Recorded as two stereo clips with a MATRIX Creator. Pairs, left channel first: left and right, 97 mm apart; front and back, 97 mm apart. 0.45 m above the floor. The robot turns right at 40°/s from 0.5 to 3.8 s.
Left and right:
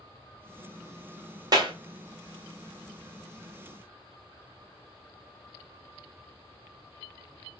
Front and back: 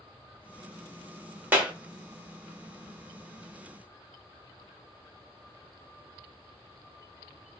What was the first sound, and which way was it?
A clap, 115° right.